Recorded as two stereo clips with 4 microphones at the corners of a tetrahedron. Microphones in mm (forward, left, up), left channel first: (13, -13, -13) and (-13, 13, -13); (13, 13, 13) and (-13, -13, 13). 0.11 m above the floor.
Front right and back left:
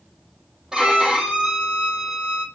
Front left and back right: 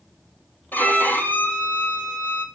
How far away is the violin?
About 3 m.